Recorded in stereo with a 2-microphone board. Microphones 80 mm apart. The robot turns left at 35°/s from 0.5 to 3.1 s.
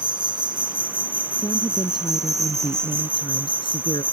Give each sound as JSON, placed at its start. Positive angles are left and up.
{"t": 0.0, "sound": "an insect", "azimuth_deg": -70}
{"t": 1.4, "sound": "a woman speaking", "azimuth_deg": 135}